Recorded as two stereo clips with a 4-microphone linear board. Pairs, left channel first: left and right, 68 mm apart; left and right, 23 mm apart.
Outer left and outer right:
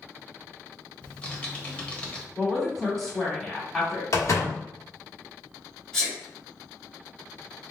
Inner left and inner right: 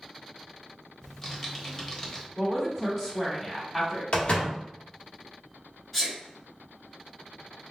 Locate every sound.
1.0 s typing on a keyboard: 20° left (ahead or behind), 1.1 m
2.4 s a woman speaking: 5° left (ahead or behind), 1.8 m
4.1 s a door slam: 50° left (ahead or behind), 1.1 m
5.9 s a sneeze: 15° left (ahead or behind), 1.3 m